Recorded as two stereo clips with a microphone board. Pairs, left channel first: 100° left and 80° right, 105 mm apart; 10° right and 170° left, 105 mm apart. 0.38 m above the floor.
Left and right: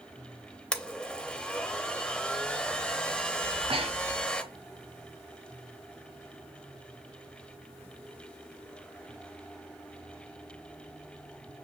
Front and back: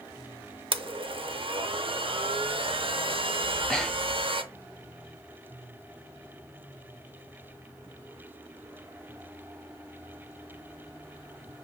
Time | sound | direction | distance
0.7 | a blender | straight behind | 0.5 m
3.4 | breathing | 100° right | 0.8 m